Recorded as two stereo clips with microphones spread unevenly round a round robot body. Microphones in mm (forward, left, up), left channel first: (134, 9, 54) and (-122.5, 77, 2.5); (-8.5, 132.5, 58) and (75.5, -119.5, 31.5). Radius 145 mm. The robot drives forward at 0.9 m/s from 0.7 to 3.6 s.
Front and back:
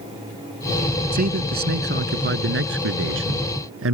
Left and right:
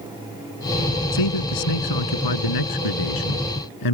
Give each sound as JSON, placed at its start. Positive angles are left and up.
{"t": 1.1, "sound": "a man speaking", "azimuth_deg": 105}